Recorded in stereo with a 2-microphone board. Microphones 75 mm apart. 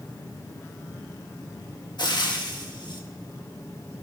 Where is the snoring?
I don't hear snoring.